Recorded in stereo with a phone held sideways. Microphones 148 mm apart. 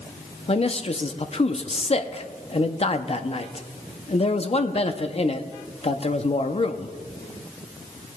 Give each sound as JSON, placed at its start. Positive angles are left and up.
{"t": 0.5, "sound": "a man speaking", "side_deg": 45, "distance_m": 0.5}